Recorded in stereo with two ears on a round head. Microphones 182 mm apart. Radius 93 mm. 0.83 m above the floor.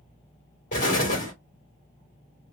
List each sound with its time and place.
0.7 s an explosion: 35° left (ahead or behind), 1.7 m